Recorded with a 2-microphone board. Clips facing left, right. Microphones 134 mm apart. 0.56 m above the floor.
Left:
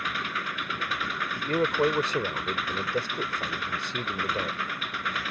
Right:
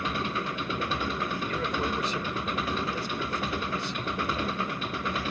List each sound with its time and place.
0.0 s an engine running: 30° right (ahead or behind)
1.4 s a man speaking: 50° left (ahead or behind)